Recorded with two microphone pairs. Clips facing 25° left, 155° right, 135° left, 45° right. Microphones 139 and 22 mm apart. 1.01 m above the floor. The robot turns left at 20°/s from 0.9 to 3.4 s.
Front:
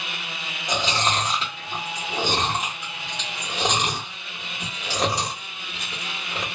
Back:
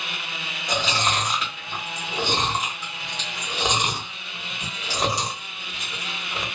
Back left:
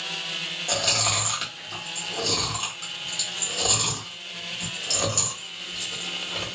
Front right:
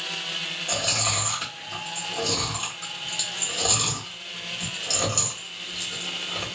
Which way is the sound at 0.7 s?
95° left.